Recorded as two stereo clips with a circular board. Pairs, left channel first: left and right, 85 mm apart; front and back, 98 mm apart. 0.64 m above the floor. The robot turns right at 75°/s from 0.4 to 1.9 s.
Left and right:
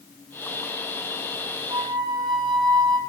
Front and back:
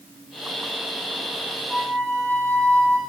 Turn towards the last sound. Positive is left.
turn(degrees=-80)